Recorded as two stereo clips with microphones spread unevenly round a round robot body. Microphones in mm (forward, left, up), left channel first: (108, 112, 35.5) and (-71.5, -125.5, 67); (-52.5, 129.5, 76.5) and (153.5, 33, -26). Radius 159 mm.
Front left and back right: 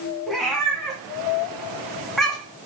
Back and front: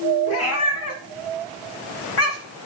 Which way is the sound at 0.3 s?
145° left.